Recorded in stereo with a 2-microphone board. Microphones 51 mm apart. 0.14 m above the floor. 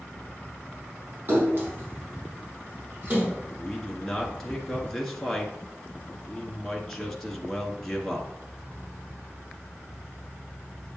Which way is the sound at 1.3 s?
40° right (ahead or behind).